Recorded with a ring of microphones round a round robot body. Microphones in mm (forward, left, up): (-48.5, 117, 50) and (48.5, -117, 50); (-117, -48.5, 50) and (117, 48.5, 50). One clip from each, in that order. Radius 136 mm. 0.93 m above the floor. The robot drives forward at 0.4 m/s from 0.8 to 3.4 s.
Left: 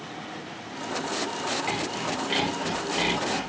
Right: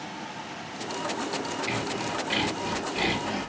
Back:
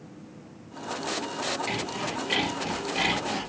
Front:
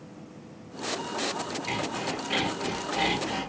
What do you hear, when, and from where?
1.7 s sawing: 170° left, 1.3 m; by 3.5 s 175° left, 1.9 m